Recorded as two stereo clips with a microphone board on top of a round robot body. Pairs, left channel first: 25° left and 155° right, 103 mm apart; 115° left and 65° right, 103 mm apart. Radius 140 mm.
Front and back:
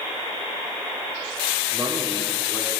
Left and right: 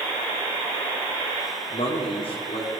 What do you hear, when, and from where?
1.7 s a man speaking: 135° left, 2 m